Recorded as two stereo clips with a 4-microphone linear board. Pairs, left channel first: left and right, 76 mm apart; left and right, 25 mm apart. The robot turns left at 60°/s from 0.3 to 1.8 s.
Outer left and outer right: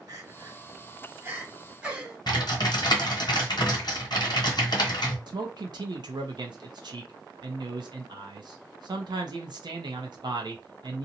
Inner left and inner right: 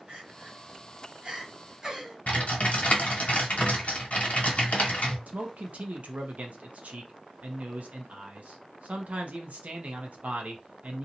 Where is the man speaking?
70° right (ahead or behind), 0.6 m.